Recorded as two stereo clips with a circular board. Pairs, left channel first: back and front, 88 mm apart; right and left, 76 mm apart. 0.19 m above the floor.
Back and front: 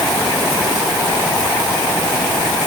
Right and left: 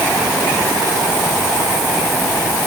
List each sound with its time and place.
Only background noise.